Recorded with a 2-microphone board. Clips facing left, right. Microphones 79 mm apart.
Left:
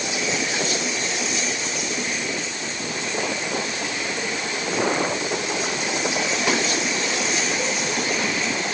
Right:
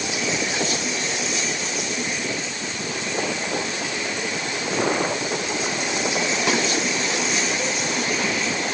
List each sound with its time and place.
Only background noise.